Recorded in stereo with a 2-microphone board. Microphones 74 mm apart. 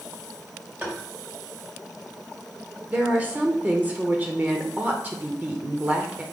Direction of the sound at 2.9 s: 25° right (ahead or behind).